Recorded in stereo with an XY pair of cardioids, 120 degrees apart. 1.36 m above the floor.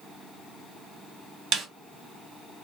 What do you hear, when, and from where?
1.5 s a snare drum: 60° right, 0.9 m